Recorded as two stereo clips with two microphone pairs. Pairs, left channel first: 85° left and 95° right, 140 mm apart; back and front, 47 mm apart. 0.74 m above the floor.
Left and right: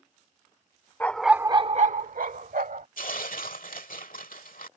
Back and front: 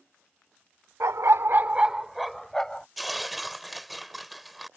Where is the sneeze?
I don't hear a sneeze.